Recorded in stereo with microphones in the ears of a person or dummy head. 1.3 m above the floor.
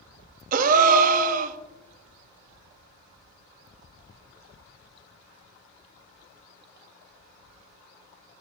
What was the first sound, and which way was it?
A gasp, 45° right (ahead or behind).